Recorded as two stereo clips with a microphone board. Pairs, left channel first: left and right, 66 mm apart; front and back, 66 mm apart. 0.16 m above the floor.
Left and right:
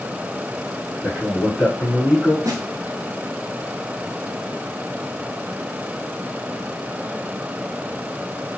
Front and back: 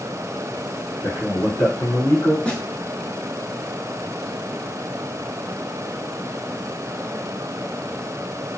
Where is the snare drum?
75° right, 0.6 m.